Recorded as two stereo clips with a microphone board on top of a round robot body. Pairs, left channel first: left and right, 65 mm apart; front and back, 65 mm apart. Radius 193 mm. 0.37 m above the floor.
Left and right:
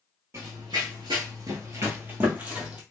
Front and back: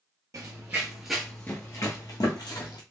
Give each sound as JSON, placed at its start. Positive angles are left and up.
{"t": 0.3, "sound": "running footsteps", "azimuth_deg": -140, "distance_m": 0.7}